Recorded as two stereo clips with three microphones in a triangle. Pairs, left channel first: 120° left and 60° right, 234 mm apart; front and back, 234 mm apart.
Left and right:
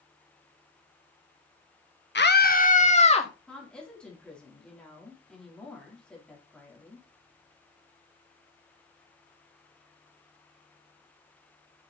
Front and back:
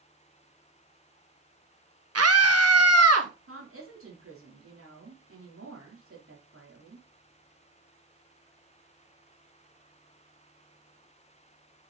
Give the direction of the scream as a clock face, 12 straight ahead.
7 o'clock.